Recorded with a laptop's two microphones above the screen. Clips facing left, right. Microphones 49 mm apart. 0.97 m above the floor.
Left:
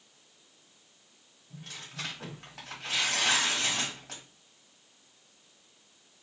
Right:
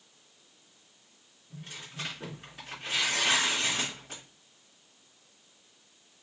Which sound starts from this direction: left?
Tearing paper, at 1.5 s.